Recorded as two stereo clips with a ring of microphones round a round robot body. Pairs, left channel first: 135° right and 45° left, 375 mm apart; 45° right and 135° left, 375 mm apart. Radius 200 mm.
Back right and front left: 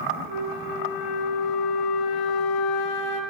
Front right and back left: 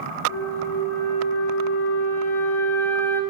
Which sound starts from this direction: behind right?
A flute, at 0.3 s.